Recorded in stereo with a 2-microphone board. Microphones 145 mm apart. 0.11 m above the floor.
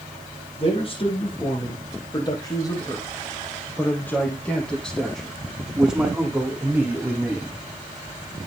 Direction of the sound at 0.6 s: 40° left (ahead or behind).